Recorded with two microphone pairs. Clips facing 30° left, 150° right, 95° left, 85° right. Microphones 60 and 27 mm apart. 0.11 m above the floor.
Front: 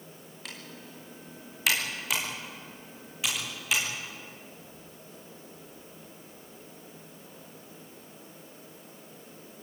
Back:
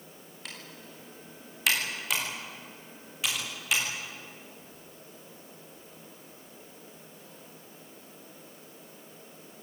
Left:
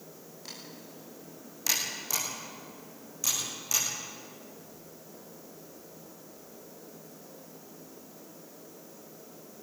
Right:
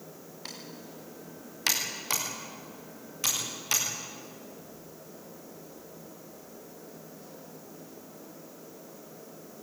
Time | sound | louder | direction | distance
0.5 | typing on a keyboard | front 1 dB, right 2 dB | 60° right | 9 m